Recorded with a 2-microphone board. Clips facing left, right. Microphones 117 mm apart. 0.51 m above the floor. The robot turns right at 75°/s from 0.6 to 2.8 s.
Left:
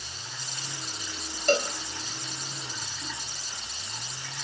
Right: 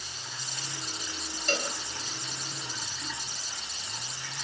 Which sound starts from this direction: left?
A cowbell, at 1.5 s.